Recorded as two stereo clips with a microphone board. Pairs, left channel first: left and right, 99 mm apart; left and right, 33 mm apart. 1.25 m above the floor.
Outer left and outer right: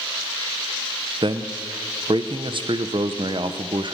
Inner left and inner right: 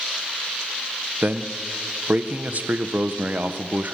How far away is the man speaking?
About 0.5 m.